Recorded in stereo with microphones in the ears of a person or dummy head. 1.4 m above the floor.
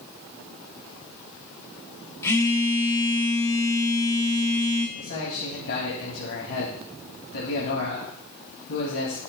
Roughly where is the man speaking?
Left.